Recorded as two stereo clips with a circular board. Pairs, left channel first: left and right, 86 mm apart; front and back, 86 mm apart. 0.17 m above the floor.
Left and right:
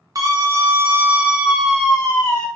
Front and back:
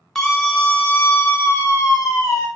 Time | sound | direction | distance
0.1 | a scream | 85° right | 1.3 m